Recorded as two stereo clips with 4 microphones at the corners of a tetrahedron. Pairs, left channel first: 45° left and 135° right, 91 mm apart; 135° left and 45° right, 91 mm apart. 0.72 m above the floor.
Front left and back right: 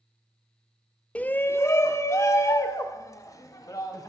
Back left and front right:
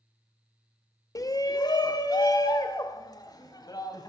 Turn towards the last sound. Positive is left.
turn(degrees=95)